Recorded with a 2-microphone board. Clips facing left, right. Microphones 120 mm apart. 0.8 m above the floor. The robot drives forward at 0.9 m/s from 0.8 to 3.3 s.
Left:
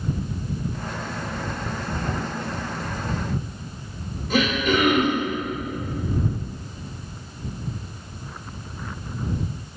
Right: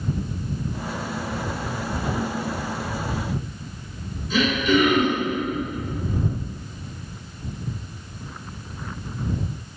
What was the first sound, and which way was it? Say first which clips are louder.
Throat clearing: right 1 dB; 60° left (ahead or behind).